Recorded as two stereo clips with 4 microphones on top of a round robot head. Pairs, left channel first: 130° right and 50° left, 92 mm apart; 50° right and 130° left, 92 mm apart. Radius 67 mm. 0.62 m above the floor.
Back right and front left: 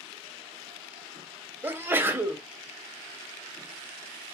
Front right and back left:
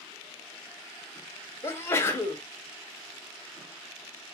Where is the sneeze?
5° right, 1.1 m.